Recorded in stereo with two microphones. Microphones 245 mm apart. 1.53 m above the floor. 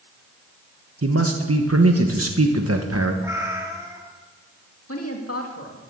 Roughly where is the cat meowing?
Centre.